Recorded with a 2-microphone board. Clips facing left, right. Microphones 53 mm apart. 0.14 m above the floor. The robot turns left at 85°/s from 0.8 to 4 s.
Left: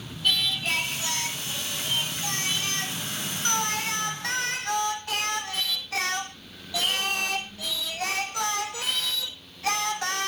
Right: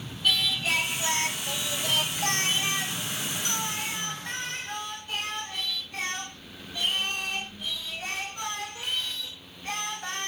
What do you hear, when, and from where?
0.2 s singing: straight ahead, 2.5 m; by 10.3 s 90° left, 2.5 m